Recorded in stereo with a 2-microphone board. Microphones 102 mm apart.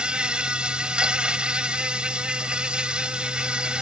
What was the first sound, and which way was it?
An insect, 10° right (ahead or behind).